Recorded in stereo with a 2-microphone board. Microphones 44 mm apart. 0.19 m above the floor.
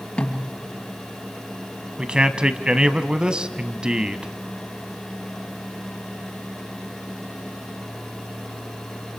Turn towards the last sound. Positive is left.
turn(degrees=-20)  # may be behind; listen again after turning